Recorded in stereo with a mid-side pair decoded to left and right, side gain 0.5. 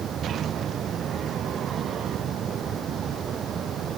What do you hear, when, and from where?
0.0 s a fan: 50° right